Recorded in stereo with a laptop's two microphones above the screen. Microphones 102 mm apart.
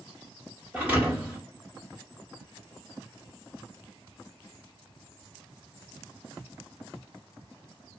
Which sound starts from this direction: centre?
A thud, at 0.7 s.